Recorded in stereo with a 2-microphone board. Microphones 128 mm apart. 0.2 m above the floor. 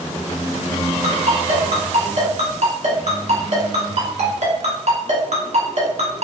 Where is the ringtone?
65° right (ahead or behind), 1.2 m.